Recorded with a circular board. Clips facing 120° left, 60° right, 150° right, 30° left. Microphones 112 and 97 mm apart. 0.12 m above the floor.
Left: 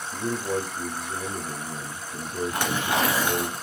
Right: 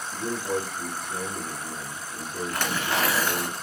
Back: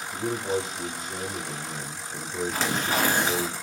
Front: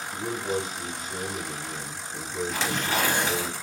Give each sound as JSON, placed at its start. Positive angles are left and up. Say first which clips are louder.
{"t": 0.1, "sound": "a man speaking", "louder": "left 1 dB, back 2 dB", "azimuth_deg": -160, "distance_m": 1.8}
{"t": 2.5, "sound": "tearing paper", "louder": "left 1 dB, back 1 dB", "azimuth_deg": -170, "distance_m": 2.5}